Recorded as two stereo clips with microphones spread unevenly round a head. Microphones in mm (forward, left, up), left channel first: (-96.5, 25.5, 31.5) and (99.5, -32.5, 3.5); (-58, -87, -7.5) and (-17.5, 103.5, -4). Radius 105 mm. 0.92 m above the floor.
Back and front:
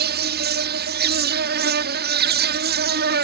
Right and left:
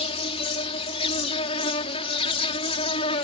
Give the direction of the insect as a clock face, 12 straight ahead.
1 o'clock.